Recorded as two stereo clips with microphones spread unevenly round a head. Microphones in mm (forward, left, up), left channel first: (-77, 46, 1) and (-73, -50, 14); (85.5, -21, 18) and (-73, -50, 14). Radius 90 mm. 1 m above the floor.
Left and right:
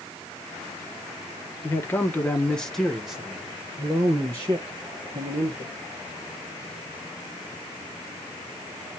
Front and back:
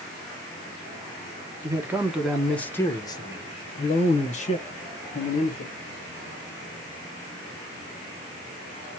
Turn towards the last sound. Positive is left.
turn(degrees=-25)